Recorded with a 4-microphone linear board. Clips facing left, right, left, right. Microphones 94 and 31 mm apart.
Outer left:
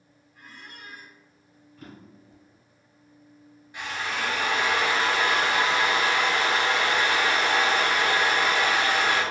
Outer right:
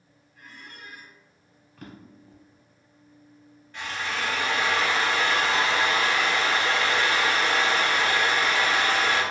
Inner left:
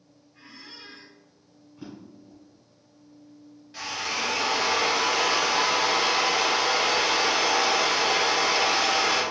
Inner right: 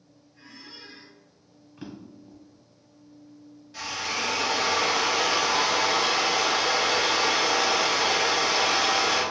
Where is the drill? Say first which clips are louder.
Even, even; 15° left (ahead or behind), 0.9 m.